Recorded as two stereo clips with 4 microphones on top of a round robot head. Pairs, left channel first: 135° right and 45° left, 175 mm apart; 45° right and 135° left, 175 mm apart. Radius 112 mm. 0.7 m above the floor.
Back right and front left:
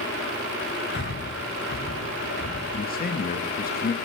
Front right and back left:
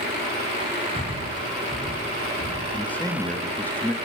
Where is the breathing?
105° right, 4.5 m.